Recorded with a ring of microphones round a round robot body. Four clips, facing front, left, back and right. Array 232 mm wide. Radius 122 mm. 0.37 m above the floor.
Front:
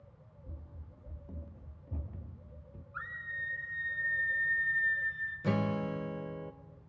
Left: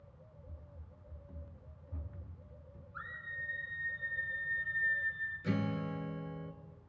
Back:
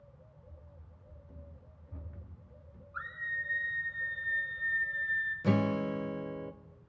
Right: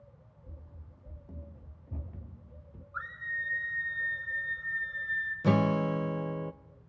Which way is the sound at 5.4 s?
95° right.